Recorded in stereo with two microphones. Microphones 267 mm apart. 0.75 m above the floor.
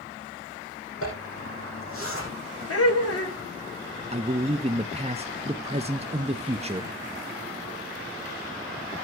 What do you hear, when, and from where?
1.0 s a zipper: 55° left (ahead or behind), 6.5 m
2.7 s laughter: 65° left (ahead or behind), 2.5 m
4.1 s a man speaking: 25° right (ahead or behind), 0.6 m